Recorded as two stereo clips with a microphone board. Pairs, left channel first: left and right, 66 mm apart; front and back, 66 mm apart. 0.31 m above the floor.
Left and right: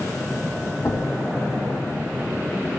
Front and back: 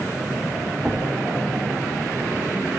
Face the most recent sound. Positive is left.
turn(degrees=100)